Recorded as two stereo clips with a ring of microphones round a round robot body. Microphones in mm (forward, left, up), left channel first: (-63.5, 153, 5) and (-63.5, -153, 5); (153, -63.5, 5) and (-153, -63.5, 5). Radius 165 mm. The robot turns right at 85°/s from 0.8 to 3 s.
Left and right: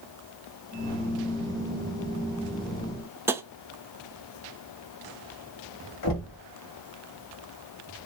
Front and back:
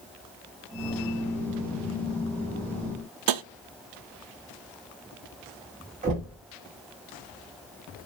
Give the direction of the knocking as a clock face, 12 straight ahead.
8 o'clock.